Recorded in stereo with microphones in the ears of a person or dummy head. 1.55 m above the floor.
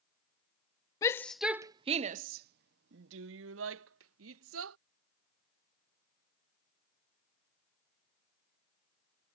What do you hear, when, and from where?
1.0 s a shout: 15° left (ahead or behind); by 4.8 s 90° right